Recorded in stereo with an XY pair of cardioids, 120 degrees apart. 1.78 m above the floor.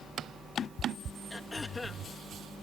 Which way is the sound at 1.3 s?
20° left.